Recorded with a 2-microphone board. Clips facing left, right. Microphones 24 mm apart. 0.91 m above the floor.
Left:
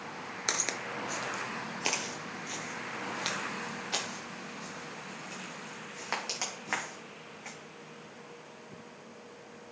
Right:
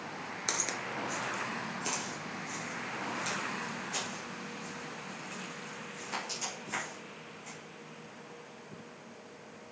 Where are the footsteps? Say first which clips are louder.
Left 2 dB; 20° left (ahead or behind), 0.9 m; by 7.5 s 65° left (ahead or behind), 4 m.